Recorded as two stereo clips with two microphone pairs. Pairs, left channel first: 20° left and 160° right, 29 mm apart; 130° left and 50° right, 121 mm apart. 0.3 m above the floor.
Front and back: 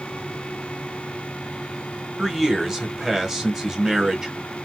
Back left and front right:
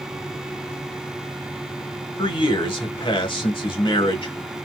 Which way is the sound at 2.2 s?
130° left.